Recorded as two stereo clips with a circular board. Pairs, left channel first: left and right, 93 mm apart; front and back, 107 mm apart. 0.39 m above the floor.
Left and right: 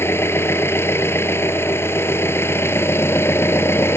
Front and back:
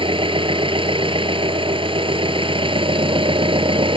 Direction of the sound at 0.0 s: 150° left.